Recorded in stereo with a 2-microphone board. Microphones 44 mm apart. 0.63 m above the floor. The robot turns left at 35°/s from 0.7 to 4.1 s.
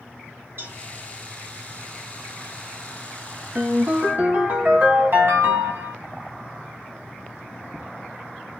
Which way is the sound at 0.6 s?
50° right (ahead or behind).